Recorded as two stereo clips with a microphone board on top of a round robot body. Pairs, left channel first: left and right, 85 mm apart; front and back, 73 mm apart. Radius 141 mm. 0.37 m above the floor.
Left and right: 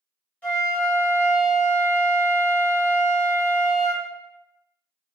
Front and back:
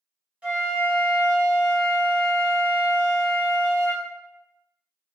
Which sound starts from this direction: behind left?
A flute, at 0.4 s.